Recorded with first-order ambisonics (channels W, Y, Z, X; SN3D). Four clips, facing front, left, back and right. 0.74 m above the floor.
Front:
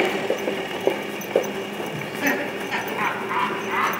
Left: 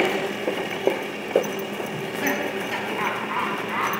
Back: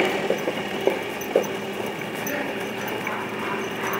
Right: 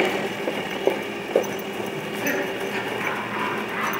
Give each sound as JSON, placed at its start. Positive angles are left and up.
{"t": 1.9, "sound": "laughter", "azimuth_deg": 35, "distance_m": 6.0}